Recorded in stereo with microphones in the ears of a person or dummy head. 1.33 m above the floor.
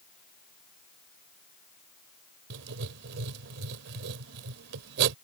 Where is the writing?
60° right (ahead or behind).